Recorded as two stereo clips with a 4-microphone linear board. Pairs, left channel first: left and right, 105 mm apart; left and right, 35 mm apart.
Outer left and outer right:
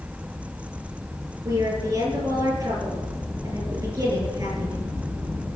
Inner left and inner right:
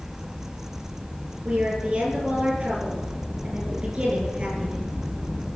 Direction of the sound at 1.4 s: 35° right (ahead or behind).